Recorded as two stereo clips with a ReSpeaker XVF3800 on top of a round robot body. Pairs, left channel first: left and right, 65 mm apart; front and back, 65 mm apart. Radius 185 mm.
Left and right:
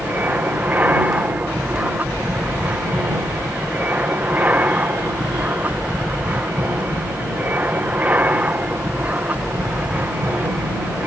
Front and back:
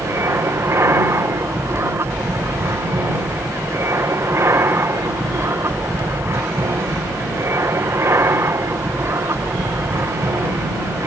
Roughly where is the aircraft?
Behind right.